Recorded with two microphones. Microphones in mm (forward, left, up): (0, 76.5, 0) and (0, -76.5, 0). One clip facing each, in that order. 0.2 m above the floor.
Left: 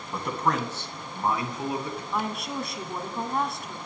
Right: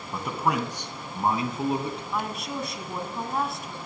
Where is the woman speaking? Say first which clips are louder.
Left 3 dB; centre (ahead or behind), 1.3 m.